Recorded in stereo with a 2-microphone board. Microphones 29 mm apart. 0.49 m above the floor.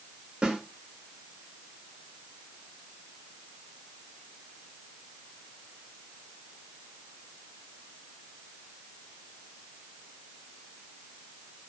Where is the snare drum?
45° right (ahead or behind), 1.1 m.